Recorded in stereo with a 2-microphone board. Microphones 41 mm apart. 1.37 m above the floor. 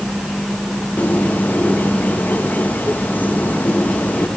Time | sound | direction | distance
1.0 | a bird | 45° left (ahead or behind) | 2 m